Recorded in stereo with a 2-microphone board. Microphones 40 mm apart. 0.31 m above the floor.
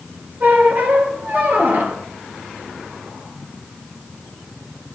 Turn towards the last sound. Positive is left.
turn(degrees=-55)  # may be behind; listen again after turning